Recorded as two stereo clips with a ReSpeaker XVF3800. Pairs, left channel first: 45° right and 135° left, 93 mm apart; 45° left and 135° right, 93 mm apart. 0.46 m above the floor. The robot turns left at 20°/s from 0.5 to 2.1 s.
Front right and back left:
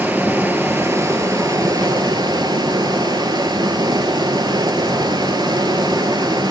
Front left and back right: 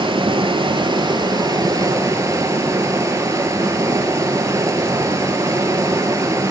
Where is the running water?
155° right, 1.1 m; by 6.5 s 170° left, 1.1 m.